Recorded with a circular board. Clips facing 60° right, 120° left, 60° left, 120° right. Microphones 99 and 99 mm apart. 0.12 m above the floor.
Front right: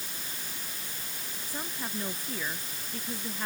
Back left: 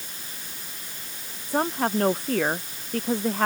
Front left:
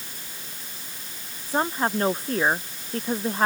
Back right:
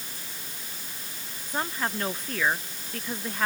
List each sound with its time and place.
1.5 s a woman speaking: 115° left